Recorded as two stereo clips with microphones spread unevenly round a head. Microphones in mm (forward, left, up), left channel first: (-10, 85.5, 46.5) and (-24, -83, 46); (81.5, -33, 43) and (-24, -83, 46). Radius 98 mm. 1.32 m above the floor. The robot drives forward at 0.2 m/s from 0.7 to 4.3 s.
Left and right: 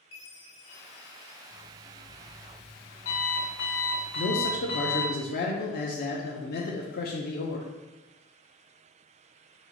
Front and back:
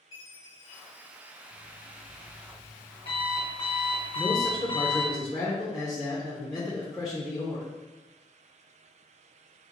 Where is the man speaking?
110° left, 0.6 m; by 7.7 s 115° left, 0.6 m.